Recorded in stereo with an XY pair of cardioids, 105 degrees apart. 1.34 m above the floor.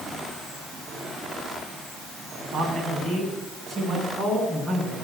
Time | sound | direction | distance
2.5 | a man speaking | 55° right | 8 m